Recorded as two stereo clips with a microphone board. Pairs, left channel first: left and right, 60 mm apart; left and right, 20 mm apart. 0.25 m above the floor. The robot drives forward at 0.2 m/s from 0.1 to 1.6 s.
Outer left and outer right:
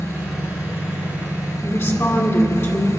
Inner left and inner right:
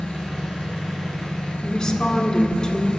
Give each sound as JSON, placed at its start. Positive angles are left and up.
{"t": 0.0, "sound": "an engine running", "side_deg": 70, "distance_m": 4.5}
{"t": 1.6, "sound": "a woman speaking", "side_deg": 45, "distance_m": 2.0}